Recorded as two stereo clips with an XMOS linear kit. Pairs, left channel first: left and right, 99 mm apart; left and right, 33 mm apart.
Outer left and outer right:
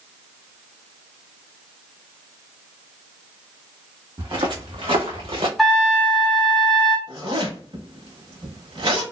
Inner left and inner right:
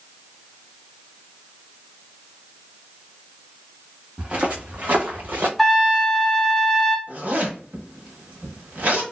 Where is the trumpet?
Centre (ahead or behind), 0.6 m.